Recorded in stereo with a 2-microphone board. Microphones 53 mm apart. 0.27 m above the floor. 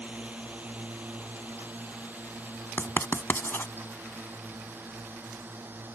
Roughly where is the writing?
Left.